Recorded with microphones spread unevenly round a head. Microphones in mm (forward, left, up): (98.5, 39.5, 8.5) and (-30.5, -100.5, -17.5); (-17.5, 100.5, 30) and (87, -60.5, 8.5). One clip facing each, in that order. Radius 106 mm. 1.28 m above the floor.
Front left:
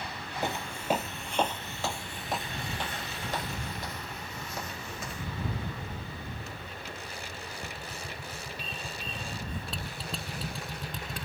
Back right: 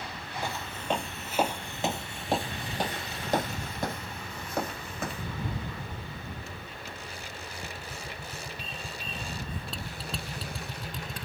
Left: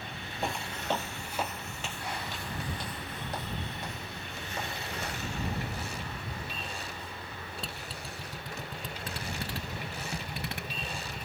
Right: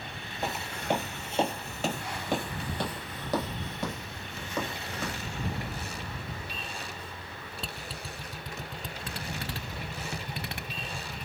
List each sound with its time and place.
0.4 s footsteps: 45° left; by 5.3 s 95° right